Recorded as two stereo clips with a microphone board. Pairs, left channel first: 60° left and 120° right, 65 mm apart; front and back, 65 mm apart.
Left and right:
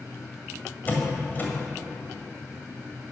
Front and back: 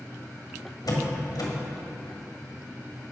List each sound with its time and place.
0.9 s a door slam: straight ahead, 1.8 m